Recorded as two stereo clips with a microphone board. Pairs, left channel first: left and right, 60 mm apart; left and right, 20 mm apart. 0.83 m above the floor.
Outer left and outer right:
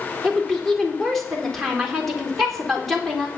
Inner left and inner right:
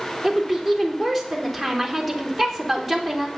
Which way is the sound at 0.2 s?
5° left (ahead or behind).